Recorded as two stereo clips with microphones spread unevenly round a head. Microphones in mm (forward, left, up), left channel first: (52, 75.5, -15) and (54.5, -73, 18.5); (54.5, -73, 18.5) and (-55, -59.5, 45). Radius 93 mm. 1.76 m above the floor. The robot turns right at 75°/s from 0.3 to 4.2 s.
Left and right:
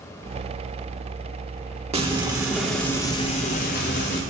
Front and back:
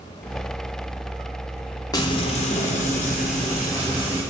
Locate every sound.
1.9 s frying: 65° right, 2 m; by 4.2 s 105° left, 2 m